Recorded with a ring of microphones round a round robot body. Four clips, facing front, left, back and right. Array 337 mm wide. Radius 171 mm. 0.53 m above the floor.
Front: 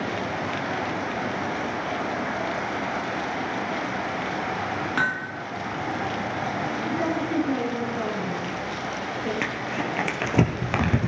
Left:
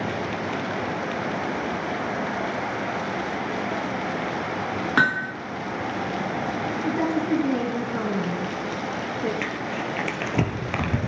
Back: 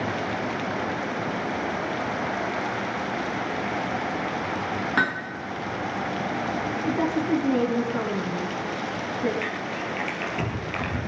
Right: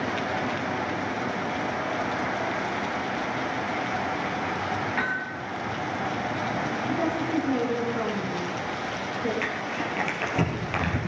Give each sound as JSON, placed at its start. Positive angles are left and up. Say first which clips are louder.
{"t": 5.0, "sound": "hammering", "louder": "left 7 dB, back 2 dB", "azimuth_deg": 95, "distance_m": 3.0}
{"t": 6.8, "sound": "a woman speaking", "louder": "left 5 dB, back 3 dB", "azimuth_deg": 115, "distance_m": 7.0}
{"t": 9.4, "sound": "crumpling", "louder": "left 1 dB, front 2 dB", "azimuth_deg": 25, "distance_m": 3.0}